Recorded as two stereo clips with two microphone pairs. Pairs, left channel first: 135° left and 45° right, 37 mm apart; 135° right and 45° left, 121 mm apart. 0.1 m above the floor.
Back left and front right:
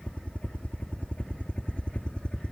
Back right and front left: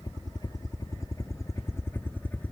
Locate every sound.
0.0 s a helicopter: 175° left; by 2.5 s 155° left